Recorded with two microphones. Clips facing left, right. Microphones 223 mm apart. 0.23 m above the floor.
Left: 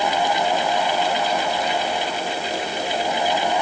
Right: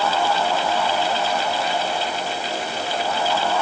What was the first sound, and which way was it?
Only background noise.